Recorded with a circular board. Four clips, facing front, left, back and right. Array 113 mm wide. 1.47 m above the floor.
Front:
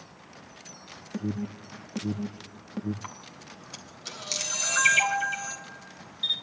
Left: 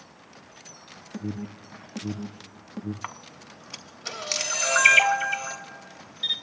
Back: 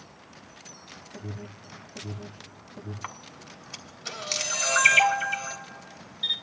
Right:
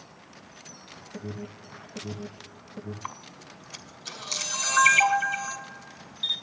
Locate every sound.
1.1 s an alarm: 30° left, 1.9 m
3.0 s a camera shutter: 110° left, 3 m